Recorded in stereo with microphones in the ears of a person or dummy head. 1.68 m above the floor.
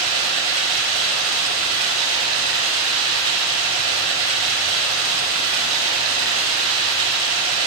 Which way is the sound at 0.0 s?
85° right.